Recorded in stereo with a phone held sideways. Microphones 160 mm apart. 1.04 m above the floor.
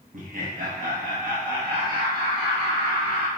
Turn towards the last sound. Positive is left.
turn(degrees=-65)  # may be behind; listen again after turning